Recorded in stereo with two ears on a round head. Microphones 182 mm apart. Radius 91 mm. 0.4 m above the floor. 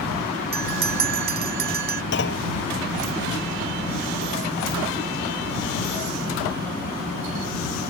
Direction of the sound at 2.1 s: 60° left (ahead or behind).